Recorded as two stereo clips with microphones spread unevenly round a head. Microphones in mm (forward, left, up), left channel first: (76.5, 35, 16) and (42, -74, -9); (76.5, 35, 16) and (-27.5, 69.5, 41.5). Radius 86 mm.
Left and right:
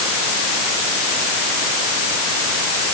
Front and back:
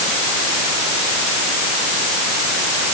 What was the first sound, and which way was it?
Only background noise.